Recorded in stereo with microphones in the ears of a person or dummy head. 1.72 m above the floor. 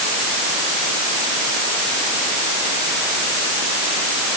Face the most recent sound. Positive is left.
No sound to turn to.